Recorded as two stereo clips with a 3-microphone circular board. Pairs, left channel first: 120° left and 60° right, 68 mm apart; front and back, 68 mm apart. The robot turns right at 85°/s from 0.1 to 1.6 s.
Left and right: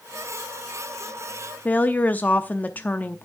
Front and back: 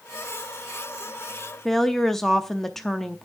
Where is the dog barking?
I don't hear a dog barking.